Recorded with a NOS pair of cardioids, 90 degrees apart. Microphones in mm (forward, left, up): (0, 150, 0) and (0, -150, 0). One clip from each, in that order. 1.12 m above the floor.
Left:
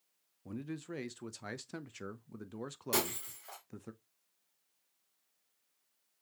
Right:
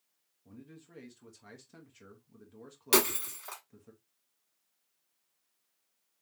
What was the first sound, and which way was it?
A man speaking, 55° left.